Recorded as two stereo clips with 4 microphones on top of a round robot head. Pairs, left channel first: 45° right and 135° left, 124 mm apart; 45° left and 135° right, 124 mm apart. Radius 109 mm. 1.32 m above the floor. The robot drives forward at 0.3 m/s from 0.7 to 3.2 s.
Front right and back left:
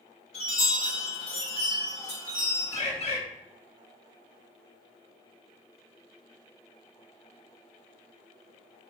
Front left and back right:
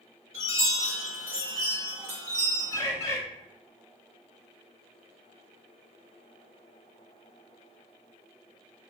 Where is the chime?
85° right, 1.6 m; by 2.8 s 110° right, 1.6 m.